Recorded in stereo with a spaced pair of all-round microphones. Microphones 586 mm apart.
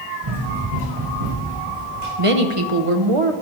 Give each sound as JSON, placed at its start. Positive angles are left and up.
{"t": 0.2, "sound": "running footsteps", "side_deg": -55, "distance_m": 5.5}
{"t": 2.2, "sound": "a woman speaking", "side_deg": -60, "distance_m": 1.1}